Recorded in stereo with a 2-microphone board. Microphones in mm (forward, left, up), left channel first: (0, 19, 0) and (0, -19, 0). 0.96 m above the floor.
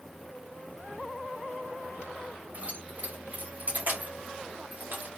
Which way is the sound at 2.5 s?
35° right (ahead or behind).